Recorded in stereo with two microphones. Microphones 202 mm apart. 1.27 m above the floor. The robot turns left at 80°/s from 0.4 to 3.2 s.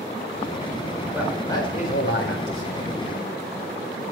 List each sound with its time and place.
1.1 s a man speaking: 165° right, 4 m; by 2.9 s 50° left, 4 m